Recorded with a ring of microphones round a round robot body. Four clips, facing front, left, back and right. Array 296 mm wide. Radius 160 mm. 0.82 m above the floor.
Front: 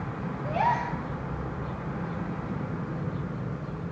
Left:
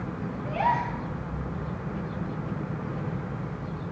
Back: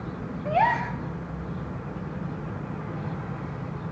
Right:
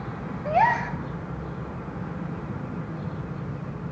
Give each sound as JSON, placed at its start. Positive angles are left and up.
{"t": 0.5, "sound": "a gasp", "azimuth_deg": -120, "distance_m": 0.6}